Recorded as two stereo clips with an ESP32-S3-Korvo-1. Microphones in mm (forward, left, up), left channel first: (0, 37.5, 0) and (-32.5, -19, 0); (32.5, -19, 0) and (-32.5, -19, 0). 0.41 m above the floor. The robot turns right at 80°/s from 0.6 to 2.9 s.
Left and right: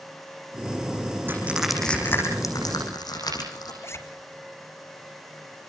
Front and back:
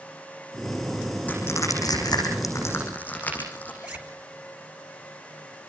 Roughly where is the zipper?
Left.